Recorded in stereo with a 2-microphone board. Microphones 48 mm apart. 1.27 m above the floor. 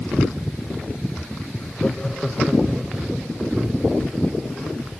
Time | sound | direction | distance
1.6 | laughter | 40° left (ahead or behind) | 1.4 m